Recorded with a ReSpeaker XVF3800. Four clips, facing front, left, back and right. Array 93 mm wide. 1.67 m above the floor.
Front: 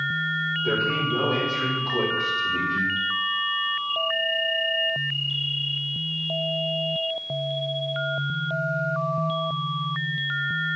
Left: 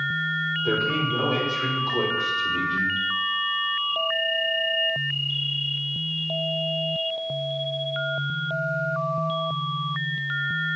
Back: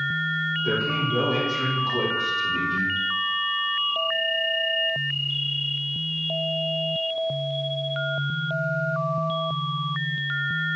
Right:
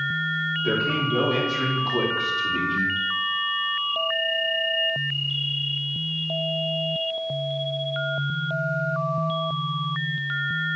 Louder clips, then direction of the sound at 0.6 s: Even, front 2 dB; 95° right.